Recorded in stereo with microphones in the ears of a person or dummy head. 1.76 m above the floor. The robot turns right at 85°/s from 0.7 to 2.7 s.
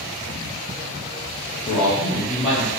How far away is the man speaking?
About 0.6 m.